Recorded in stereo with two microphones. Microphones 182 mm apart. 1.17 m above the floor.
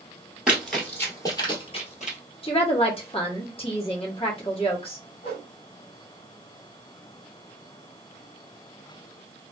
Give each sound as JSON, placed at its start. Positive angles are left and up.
{"t": 0.5, "sound": "running footsteps", "side_deg": -5, "distance_m": 1.6}
{"t": 2.4, "sound": "a woman speaking", "side_deg": 30, "distance_m": 1.2}
{"t": 5.2, "sound": "a whoosh", "side_deg": 35, "distance_m": 1.5}